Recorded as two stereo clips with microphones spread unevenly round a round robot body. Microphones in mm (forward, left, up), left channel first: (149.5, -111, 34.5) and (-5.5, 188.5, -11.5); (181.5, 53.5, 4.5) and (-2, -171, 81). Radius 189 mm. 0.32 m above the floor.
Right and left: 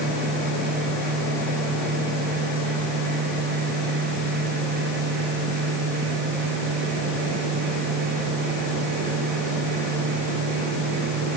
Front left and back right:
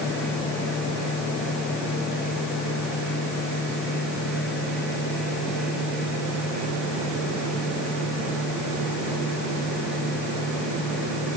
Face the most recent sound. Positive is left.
No sound to turn to.